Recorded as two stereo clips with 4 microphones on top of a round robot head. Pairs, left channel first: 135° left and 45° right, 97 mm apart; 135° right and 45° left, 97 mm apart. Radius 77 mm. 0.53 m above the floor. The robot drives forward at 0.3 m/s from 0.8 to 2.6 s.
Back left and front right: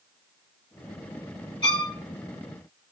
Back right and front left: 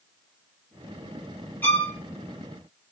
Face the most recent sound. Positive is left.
turn(degrees=165)